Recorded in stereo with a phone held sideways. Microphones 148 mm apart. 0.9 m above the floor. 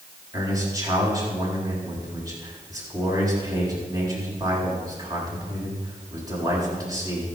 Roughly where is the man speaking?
Right.